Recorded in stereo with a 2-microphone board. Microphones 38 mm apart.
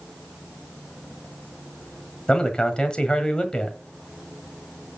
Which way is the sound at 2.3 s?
25° left (ahead or behind).